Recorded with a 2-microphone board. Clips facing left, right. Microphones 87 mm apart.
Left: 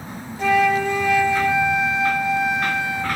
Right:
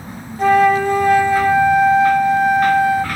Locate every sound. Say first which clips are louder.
0.4 s a flute: right 5 dB; 40° right (ahead or behind), 0.5 m